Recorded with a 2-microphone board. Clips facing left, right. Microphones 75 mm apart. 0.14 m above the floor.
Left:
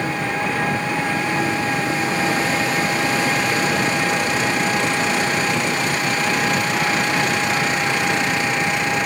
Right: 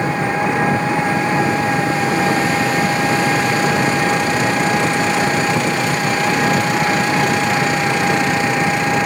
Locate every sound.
0.0 s an engine running: 20° right (ahead or behind)